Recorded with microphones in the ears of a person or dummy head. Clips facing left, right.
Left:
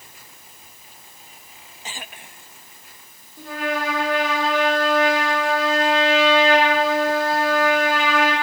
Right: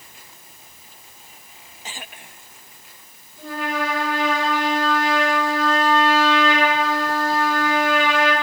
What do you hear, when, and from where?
3.4 s a trumpet: 50° left (ahead or behind), 3 m